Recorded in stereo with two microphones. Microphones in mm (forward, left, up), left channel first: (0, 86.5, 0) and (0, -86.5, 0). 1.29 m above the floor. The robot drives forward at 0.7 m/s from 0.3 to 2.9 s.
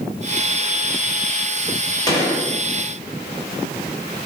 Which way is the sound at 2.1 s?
20° left (ahead or behind).